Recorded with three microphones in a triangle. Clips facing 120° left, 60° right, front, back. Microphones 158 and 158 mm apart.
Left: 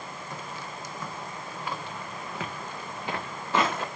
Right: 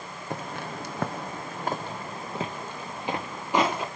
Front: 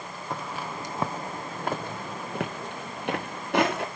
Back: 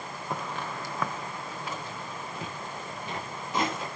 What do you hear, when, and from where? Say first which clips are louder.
0.3 s footsteps: right 8 dB, even; 95° right, 1.1 m; by 3.9 s 15° left, 2.5 m